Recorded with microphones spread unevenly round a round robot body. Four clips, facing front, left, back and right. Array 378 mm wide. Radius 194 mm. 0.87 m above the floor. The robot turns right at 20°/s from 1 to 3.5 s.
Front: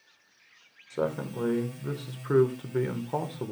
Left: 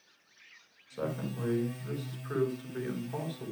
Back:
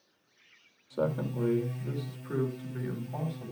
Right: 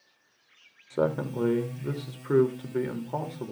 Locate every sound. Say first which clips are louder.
0.9 s a man speaking: right 9 dB, front 1 dB; 75° right, 3 m; by 3.5 s 25° right, 3 m